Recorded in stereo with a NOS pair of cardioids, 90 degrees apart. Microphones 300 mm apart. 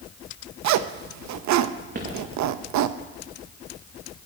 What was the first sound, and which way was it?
A zipper, 65° right.